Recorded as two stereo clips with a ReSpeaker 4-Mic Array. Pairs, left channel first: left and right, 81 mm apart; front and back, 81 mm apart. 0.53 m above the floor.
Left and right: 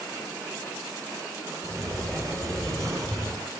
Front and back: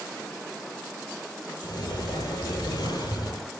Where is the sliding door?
40° right, 8.5 m.